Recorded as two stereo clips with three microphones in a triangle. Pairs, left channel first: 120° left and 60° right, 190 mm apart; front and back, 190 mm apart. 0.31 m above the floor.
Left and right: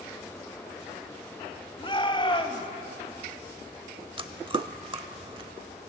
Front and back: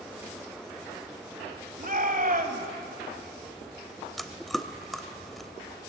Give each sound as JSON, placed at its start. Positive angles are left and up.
{"t": 1.8, "sound": "a shout", "azimuth_deg": 175, "distance_m": 1.8}
{"t": 4.2, "sound": "chewing", "azimuth_deg": -90, "distance_m": 1.0}